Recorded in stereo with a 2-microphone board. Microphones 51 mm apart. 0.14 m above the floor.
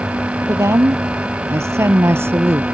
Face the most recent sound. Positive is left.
turn(degrees=-50)  # may be behind; listen again after turning